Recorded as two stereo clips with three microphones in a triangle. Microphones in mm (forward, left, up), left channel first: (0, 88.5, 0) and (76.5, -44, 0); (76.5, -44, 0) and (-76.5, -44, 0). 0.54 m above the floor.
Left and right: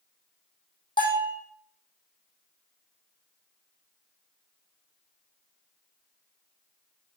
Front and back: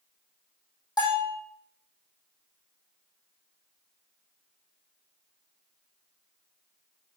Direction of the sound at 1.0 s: 65° left.